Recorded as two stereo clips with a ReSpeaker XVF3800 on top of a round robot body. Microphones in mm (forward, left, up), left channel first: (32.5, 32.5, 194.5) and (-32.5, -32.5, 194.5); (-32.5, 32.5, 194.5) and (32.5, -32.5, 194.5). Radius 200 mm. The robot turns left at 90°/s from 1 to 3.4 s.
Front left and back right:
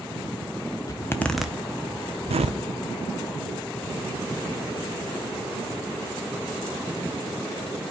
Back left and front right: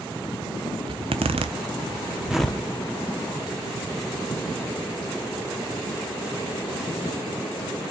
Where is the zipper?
10° right, 0.8 m; by 2.6 s 155° right, 0.8 m.